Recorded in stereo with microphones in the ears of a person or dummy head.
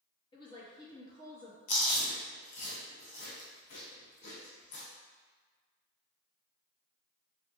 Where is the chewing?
40° left (ahead or behind), 0.8 m.